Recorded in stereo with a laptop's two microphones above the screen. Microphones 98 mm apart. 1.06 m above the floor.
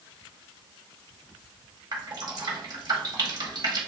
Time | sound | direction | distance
1.9 | dripping | 45° right (ahead or behind) | 1.4 m